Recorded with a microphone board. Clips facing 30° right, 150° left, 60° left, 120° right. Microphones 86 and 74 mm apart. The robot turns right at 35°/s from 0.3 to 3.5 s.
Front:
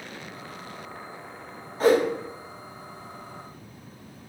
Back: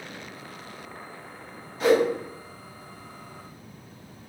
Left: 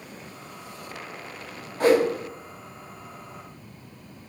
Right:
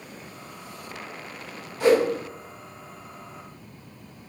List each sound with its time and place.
1.8 s a whoosh: 15° left, 1.0 m; by 2.0 s 25° left, 1.0 m